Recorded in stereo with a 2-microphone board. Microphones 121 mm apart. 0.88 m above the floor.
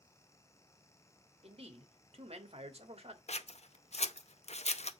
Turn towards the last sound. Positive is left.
turn(degrees=65)  # may be behind; listen again after turning